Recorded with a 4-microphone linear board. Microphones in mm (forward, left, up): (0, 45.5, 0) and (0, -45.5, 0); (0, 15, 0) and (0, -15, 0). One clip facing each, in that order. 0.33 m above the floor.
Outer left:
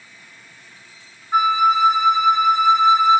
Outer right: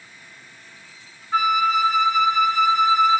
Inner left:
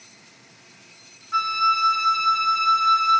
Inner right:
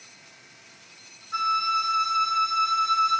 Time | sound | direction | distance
1.3 | a flute | 20° left (ahead or behind) | 0.6 m